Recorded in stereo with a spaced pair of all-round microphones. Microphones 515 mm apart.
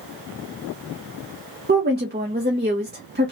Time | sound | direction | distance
1.7 | a woman speaking | 20° right (ahead or behind) | 1.0 m